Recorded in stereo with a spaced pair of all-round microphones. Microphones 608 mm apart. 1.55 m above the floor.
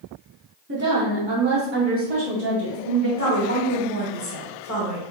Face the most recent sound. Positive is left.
turn(degrees=25)  # may be behind; listen again after turning